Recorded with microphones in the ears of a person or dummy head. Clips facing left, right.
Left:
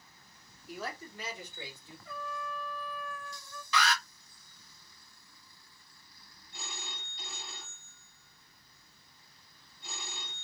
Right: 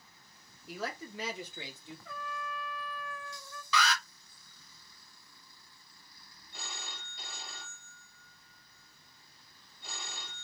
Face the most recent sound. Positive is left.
turn(degrees=-50)  # may be behind; listen again after turning